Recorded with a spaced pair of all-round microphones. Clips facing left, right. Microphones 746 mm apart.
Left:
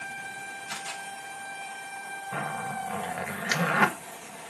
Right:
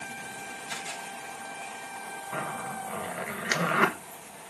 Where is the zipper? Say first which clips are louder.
Left 1 dB; 25° left (ahead or behind), 1.0 m.